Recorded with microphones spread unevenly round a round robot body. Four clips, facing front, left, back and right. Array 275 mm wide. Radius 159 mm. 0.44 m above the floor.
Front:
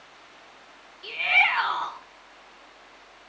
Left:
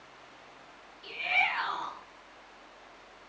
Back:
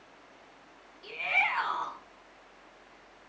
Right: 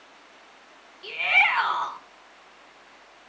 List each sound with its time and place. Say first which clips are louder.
1.0 s a shout: right 7 dB, front 6 dB; 55° right, 4 m